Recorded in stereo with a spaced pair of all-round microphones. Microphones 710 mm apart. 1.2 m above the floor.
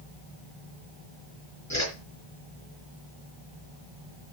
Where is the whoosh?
25° left (ahead or behind), 3.5 m.